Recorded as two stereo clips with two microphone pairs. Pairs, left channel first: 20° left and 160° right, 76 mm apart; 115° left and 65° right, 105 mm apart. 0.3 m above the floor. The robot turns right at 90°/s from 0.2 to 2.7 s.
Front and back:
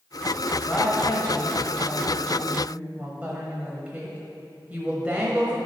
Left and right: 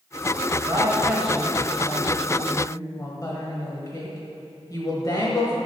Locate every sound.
0.7 s a woman speaking: 40° right, 1.3 m; by 5.6 s 145° left, 1.3 m